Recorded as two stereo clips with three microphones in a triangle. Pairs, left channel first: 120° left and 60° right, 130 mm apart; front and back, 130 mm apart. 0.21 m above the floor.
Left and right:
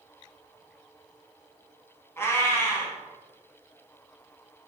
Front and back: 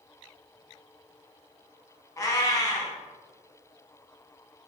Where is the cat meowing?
55° left, 0.6 m.